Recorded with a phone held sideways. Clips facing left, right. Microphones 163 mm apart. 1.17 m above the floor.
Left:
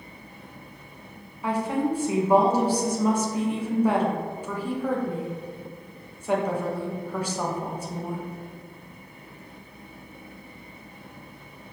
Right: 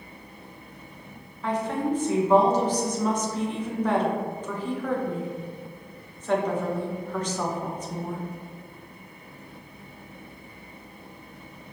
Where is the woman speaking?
10° left (ahead or behind), 0.9 m.